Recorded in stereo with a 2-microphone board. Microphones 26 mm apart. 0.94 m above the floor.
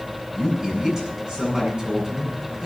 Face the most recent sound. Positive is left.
turn(degrees=-25)  # may be behind; listen again after turning